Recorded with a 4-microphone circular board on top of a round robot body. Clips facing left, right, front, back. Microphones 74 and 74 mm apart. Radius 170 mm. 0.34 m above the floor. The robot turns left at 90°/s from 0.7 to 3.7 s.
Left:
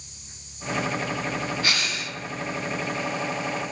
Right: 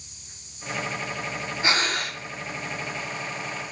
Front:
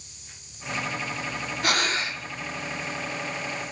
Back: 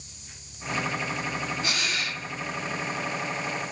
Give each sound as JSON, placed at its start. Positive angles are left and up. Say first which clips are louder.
{"t": 1.6, "sound": "breathing", "louder": "right 3 dB, front 4 dB", "azimuth_deg": -25, "distance_m": 0.8}